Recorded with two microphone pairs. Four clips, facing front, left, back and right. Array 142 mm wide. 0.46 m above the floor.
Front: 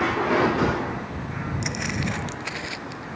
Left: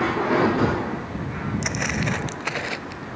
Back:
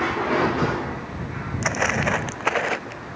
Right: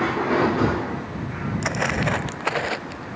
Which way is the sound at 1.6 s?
150° right.